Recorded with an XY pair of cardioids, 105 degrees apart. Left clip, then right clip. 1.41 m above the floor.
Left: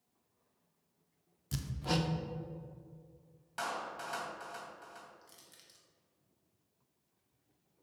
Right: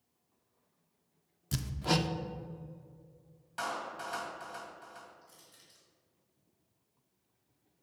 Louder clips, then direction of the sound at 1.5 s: Right 4 dB; 25° right.